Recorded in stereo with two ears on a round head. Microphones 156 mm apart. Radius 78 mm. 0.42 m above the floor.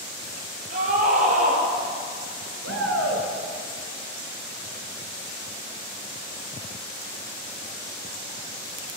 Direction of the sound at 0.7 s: 50° right (ahead or behind).